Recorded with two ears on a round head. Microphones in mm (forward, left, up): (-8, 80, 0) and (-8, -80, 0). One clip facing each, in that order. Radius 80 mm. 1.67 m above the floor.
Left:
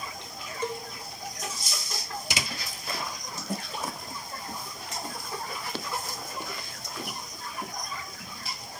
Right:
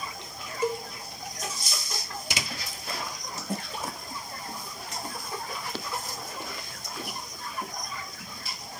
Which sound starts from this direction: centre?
A cowbell, at 0.6 s.